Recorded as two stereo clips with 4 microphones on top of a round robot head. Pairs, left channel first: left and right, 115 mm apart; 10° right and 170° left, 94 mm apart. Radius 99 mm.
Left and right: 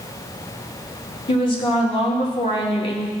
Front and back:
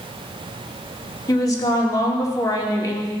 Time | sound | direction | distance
1.3 | a woman speaking | 40° left | 2.5 m